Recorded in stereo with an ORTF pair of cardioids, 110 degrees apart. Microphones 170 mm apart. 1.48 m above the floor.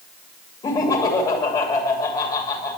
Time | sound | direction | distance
0.6 | laughter | 25° left | 2.5 m